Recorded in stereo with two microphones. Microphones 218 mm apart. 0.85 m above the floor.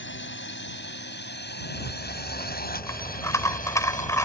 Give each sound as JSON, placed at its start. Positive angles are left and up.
{"t": 0.0, "sound": "a drone", "side_deg": 55}
{"t": 1.7, "sound": "a rattle", "side_deg": 15}